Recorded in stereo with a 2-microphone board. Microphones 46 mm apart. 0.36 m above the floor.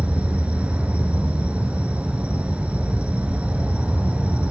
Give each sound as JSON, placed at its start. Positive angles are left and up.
{"t": 0.0, "sound": "an insect", "side_deg": -25, "distance_m": 0.7}